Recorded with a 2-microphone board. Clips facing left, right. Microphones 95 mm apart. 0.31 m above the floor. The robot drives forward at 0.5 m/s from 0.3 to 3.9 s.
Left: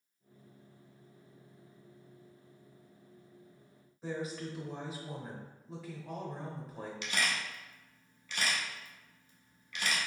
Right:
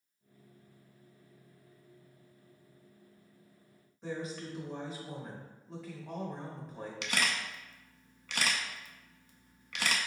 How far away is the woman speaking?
About 0.9 m.